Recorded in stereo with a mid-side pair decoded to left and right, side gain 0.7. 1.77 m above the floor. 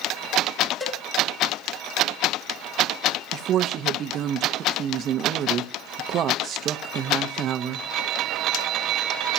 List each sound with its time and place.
0.8 s a cowbell: 15° left, 3 m
3.3 s a woman speaking: 45° right, 0.9 m